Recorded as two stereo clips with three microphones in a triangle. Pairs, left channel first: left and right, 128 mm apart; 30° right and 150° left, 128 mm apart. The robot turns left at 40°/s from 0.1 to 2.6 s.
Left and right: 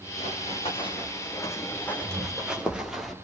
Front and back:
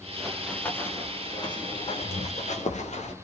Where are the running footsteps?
60° left, 4.5 m; by 3.1 s straight ahead, 4 m.